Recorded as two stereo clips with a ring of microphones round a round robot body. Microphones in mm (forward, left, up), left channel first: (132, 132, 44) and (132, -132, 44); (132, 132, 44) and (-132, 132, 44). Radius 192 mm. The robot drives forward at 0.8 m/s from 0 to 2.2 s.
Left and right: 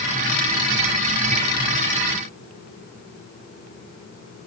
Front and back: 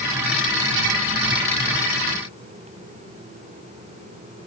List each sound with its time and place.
Only background noise.